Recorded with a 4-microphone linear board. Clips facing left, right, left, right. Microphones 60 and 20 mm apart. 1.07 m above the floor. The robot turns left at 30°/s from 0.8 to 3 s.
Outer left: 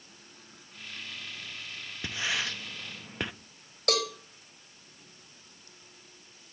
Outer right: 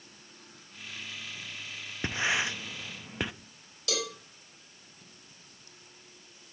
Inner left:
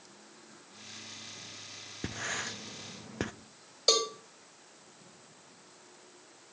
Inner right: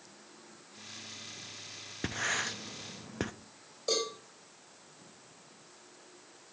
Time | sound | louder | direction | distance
2.0 | writing | outer right 3 dB, inner right 3 dB | 30° right (ahead or behind) | 0.7 m
3.9 | a cowbell | outer left 5 dB, inner left 5 dB | 50° left (ahead or behind) | 4.5 m